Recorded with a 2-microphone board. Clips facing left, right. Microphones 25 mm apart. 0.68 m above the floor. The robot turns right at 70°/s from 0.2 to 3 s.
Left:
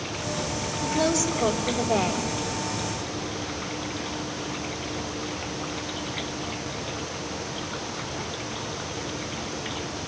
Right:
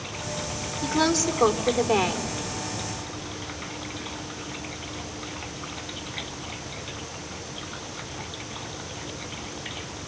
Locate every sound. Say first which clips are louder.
0.8 s a woman speaking: right 1 dB; 155° right, 2 m; by 2.3 s 50° right, 2 m